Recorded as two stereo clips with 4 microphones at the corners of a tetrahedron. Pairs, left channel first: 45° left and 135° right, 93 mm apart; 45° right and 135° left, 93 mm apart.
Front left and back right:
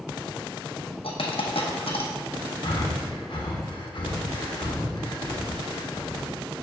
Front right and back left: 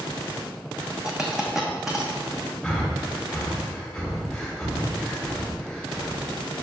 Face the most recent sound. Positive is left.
turn(degrees=30)